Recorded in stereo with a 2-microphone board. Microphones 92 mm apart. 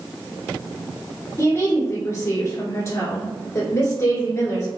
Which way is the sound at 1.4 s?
30° left (ahead or behind).